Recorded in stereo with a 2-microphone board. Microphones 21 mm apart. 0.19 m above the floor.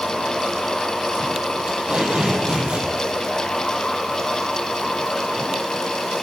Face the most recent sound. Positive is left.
turn(degrees=-65)  # may be behind; listen again after turning